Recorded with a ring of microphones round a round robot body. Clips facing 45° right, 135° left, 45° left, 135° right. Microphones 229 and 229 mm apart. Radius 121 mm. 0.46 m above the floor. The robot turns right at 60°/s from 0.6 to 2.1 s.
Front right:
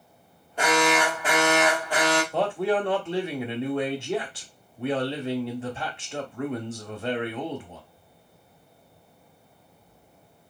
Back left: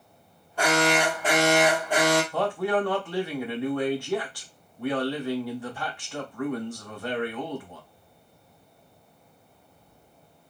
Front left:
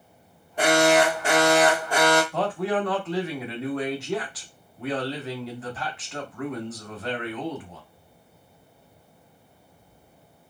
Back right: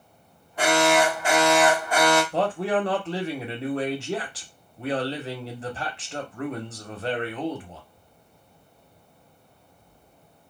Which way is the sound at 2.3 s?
95° right.